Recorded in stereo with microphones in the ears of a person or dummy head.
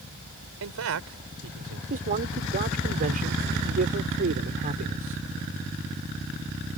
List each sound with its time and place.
0.6 s a man speaking: 80° right
1.9 s a man speaking: 40° right (ahead or behind)